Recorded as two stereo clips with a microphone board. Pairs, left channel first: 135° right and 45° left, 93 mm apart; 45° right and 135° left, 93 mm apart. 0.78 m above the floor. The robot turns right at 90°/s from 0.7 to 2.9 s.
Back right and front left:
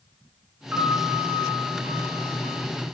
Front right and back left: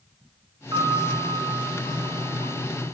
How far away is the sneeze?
I don't hear a sneeze.